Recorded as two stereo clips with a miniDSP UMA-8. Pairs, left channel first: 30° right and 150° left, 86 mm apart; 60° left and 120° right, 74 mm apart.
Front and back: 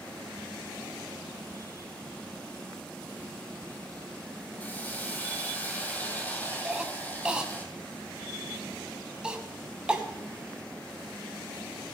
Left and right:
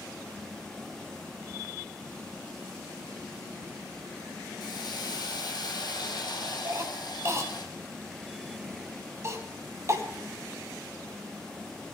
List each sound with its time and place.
4.6 s a hiss: 40° left, 1.9 m
6.7 s a cough: 135° right, 1.7 m